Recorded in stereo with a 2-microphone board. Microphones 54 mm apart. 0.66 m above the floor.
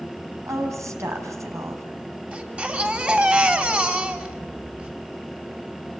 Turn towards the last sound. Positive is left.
turn(degrees=-25)  # may be behind; listen again after turning